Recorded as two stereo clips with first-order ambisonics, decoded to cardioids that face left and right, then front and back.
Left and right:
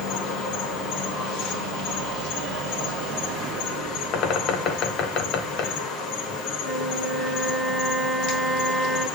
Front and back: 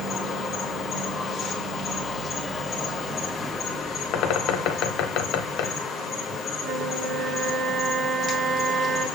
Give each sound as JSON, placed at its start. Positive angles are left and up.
{"t": 0.0, "sound": "an insect", "azimuth_deg": 65, "distance_m": 1.8}
{"t": 4.1, "sound": "a bird", "azimuth_deg": 40, "distance_m": 1.0}
{"t": 6.6, "sound": "a flute", "azimuth_deg": -175, "distance_m": 3.0}